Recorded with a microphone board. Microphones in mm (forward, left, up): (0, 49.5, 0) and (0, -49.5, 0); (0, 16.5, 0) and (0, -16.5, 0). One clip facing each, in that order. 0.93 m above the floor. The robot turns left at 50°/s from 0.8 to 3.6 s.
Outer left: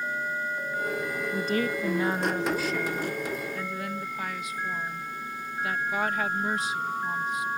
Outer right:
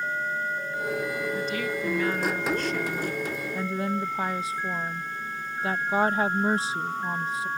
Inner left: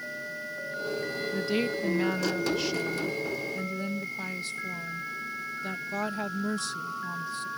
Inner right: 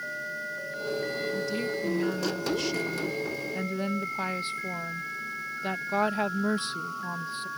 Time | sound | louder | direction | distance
1.3 | a woman speaking | outer left 2 dB, inner left 2 dB | 70° left | ?